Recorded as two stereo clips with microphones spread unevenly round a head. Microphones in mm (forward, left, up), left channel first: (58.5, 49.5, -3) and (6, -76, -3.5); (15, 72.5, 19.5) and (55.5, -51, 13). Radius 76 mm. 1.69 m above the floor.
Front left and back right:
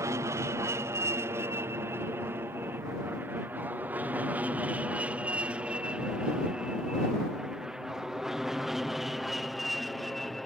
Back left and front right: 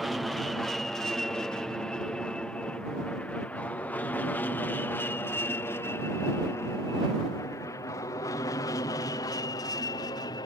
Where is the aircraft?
160° right; by 10.5 s 155° left.